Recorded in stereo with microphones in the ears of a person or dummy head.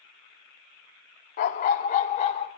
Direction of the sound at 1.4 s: 50° left (ahead or behind).